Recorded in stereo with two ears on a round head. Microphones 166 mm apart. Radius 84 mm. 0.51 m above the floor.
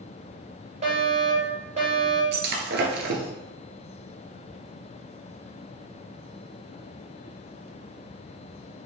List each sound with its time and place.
0.8 s a fire alarm: 40° right (ahead or behind), 3.5 m
2.3 s breaking glass: 65° right (ahead or behind), 1.9 m